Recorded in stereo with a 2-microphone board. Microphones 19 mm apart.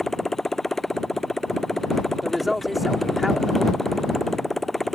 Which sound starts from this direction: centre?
A woman speaking, at 2.2 s.